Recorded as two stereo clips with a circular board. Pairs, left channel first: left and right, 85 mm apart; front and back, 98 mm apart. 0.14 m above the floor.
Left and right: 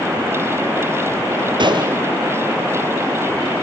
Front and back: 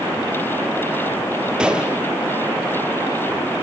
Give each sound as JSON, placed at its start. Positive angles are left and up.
{"t": 1.6, "sound": "a gunshot", "azimuth_deg": -100, "distance_m": 2.0}